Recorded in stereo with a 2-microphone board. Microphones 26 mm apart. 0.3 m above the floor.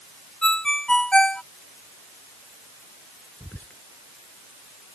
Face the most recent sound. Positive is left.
turn(degrees=70)  # may be behind; listen again after turning